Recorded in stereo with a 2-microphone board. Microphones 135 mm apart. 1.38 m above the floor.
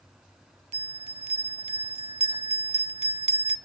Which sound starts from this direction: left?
A bell, at 0.7 s.